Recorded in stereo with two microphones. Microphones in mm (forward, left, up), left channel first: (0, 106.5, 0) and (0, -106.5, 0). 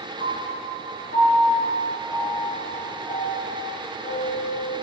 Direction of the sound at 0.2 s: 65° left (ahead or behind).